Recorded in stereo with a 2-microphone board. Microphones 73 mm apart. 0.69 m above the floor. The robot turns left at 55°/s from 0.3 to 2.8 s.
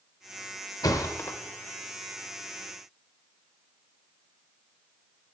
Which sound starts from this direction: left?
A thud, at 0.8 s.